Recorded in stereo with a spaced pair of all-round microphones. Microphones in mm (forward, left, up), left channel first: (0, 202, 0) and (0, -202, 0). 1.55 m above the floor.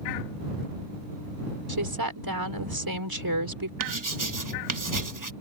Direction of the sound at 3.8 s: 50° right (ahead or behind).